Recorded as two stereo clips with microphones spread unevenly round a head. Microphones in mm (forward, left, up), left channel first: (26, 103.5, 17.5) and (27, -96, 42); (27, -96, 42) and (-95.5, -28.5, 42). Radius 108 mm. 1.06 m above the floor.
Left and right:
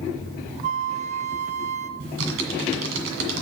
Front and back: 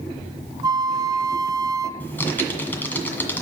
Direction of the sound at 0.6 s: 145° right.